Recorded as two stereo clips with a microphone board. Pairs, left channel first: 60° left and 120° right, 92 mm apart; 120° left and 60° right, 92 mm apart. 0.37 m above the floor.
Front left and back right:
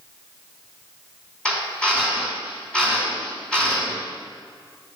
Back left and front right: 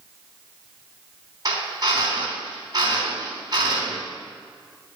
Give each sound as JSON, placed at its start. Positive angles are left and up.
{"t": 1.4, "sound": "a drill", "azimuth_deg": -20, "distance_m": 3.5}